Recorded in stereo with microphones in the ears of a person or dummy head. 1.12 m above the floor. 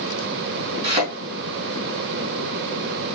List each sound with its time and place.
0.8 s a thud: 35° right (ahead or behind), 3.5 m